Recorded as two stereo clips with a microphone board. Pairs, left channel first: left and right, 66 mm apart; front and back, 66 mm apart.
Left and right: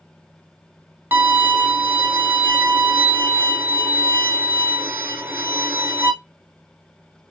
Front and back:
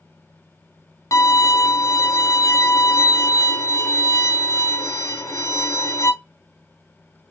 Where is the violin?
30° right, 0.8 m.